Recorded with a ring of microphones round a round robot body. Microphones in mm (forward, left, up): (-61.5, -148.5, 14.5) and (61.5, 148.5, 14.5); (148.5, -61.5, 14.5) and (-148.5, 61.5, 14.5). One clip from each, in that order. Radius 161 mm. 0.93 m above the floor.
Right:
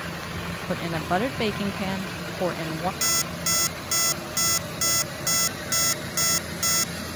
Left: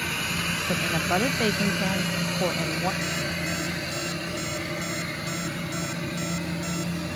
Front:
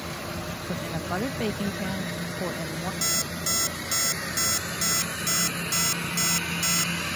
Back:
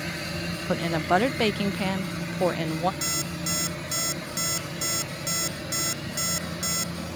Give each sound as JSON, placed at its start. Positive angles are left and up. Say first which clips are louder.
{"t": 0.7, "sound": "a woman speaking", "louder": "right 1 dB, back 9 dB", "azimuth_deg": 175}
{"t": 3.0, "sound": "an alarm clock", "louder": "right 2 dB, front 2 dB", "azimuth_deg": -105}